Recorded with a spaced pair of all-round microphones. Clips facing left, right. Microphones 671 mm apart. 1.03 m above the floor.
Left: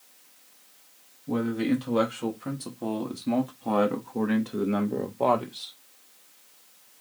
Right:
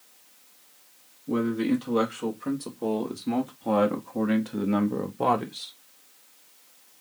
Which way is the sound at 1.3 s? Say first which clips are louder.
Right 1 dB; 25° left (ahead or behind).